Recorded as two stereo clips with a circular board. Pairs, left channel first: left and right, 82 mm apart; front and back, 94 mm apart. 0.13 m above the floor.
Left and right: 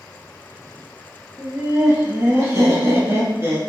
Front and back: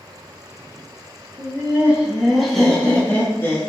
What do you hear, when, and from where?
1.4 s laughter: 130° right, 1.4 m; by 3.7 s 40° right, 1.4 m